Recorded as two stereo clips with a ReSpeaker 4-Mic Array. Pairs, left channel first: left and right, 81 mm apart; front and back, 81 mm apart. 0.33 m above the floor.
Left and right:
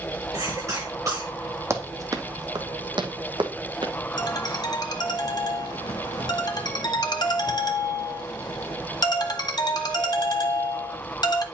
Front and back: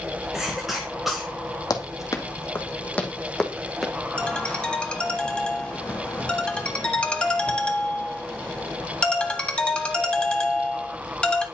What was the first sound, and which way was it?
A cough, 95° right.